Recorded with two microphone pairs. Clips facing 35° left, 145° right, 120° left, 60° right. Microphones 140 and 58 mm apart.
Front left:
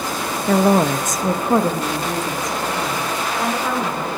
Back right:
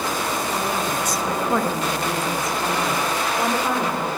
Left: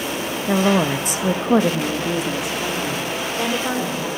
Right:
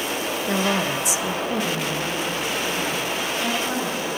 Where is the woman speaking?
50° left, 1.3 m; by 4.1 s 145° left, 4 m.